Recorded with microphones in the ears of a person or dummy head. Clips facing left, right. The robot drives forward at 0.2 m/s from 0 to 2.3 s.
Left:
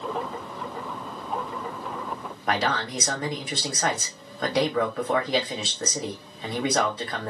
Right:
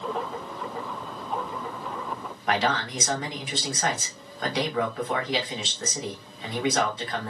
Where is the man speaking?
35° left (ahead or behind), 0.9 m.